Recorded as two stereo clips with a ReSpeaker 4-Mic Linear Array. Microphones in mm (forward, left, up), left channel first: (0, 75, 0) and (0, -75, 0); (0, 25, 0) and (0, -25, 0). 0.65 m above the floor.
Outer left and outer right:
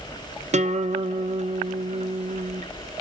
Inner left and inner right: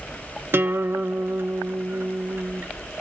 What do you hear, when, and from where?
0.5 s a guitar: 55° right (ahead or behind), 0.7 m